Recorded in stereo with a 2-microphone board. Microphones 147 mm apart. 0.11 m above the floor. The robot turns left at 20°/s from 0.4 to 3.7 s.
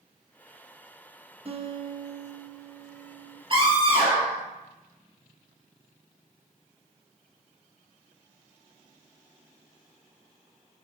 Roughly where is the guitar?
Behind right.